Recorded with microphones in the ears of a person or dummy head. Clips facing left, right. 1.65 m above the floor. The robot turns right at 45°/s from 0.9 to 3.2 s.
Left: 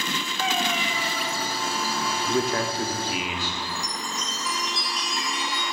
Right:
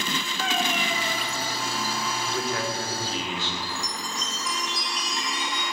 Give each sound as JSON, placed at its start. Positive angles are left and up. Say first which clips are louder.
{"t": 0.4, "sound": "a cat meowing", "louder": "left 1 dB", "side_deg": 0, "distance_m": 1.1}
{"t": 2.3, "sound": "a man speaking", "louder": "left 6 dB", "azimuth_deg": 130, "distance_m": 0.9}
{"t": 3.6, "sound": "a chime", "louder": "left 1 dB", "side_deg": 15, "distance_m": 1.0}